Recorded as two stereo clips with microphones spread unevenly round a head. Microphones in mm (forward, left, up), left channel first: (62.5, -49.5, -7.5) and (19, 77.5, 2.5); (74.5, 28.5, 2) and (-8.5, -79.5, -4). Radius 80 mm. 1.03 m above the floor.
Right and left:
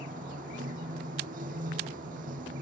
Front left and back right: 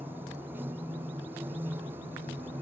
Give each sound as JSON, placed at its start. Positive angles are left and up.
{"t": 0.0, "sound": "running water", "azimuth_deg": 155}